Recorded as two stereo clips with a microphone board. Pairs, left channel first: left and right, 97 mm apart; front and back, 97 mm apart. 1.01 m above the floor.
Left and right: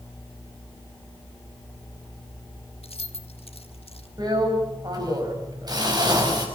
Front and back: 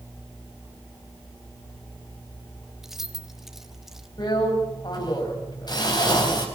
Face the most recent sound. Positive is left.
turn(degrees=-45)